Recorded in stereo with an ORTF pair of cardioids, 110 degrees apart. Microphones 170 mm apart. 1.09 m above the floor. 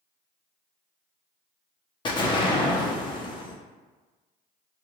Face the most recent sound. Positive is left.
turn(degrees=30)